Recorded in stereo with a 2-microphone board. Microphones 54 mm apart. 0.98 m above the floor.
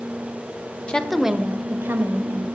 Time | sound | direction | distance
0.9 | a woman speaking | 20° left (ahead or behind) | 0.5 m